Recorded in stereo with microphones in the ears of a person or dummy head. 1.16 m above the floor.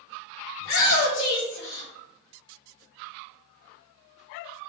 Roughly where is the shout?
Left.